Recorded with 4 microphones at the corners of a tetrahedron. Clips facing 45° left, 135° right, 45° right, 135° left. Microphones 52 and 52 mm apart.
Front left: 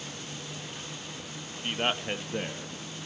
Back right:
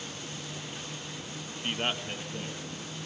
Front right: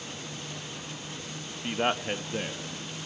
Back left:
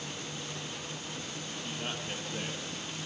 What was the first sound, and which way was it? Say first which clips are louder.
A man speaking: front left 3 dB, front right 12 dB; 55° right.